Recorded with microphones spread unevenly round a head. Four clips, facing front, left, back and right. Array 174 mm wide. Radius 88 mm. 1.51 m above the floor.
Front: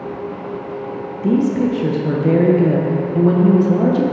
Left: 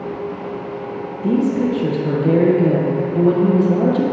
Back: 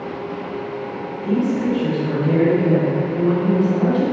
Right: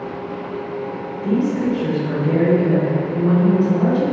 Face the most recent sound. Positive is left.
turn(degrees=35)